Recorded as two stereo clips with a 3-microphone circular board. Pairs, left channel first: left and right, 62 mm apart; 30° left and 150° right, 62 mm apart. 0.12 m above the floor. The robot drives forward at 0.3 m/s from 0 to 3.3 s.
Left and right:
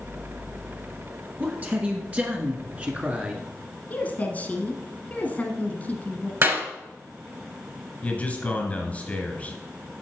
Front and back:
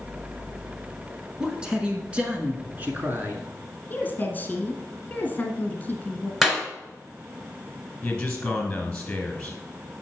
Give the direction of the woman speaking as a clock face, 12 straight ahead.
10 o'clock.